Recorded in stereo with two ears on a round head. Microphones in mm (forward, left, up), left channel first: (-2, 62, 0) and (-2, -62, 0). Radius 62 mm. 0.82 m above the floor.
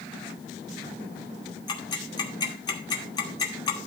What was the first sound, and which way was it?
Ticking, 30° left (ahead or behind).